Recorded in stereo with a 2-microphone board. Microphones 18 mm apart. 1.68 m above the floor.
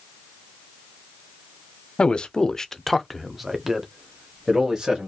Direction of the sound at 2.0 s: 65° left (ahead or behind).